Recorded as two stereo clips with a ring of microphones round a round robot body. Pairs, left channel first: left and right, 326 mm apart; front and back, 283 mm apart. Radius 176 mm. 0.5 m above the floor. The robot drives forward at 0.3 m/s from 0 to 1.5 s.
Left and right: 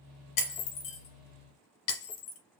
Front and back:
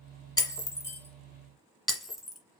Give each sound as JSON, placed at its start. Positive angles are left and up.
{"t": 0.4, "sound": "breaking glass", "azimuth_deg": 75, "distance_m": 1.5}